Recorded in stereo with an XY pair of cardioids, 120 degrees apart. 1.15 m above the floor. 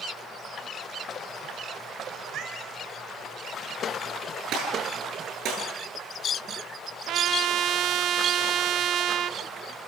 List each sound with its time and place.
2.2 s a cat meowing: 60° right, 6 m
4.5 s a gunshot: 70° right, 10 m
7.1 s a trumpet: 65° right, 0.6 m